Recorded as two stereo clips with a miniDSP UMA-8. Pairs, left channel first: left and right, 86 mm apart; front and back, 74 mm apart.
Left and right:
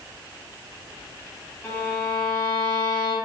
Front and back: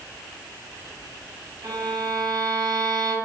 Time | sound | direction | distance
1.6 | a violin | 155° left | 2 m